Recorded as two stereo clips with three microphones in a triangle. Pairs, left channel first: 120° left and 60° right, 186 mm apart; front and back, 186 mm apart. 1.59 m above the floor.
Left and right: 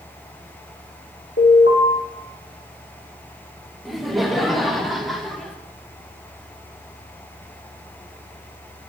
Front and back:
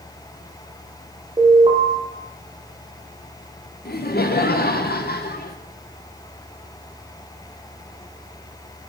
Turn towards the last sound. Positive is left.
turn(degrees=30)